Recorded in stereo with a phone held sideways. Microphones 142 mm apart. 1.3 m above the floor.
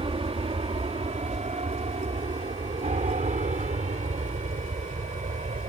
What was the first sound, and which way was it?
An aircraft, 40° right (ahead or behind).